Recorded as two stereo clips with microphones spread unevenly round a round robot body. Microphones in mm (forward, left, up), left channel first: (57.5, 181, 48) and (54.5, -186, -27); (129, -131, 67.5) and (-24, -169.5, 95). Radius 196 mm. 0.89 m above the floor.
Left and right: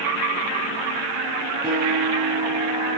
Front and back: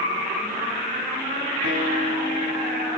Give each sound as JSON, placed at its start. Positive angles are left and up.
{"t": 1.6, "sound": "a guitar", "azimuth_deg": -170, "distance_m": 8.0}